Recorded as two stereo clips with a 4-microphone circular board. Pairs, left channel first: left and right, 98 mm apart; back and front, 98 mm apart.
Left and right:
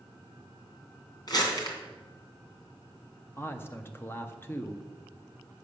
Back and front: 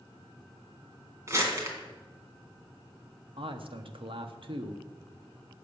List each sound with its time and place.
1.3 s crumpling: 55° left, 2.5 m
3.4 s a man speaking: 25° left, 1.0 m